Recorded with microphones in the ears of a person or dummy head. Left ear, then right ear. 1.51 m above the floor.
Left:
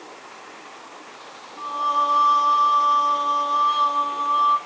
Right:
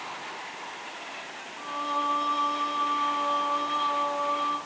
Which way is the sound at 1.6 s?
75° left (ahead or behind).